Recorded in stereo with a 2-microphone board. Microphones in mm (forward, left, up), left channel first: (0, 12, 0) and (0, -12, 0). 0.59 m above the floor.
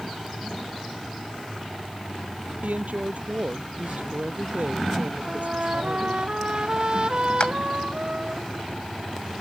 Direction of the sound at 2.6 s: 85° right.